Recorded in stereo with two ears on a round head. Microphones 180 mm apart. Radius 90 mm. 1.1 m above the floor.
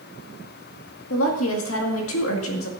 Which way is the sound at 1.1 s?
75° left (ahead or behind).